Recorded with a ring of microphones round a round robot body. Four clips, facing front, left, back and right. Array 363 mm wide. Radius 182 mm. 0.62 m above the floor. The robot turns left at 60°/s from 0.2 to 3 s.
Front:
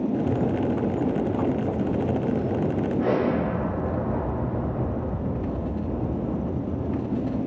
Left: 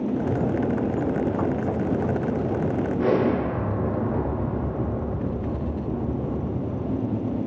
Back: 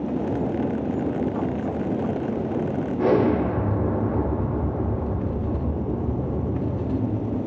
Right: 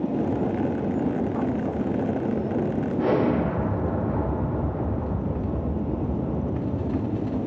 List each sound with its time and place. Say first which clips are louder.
3.0 s an explosion: even, back 5 dB; 170° left, 0.5 m; by 7.4 s 165° left, 0.5 m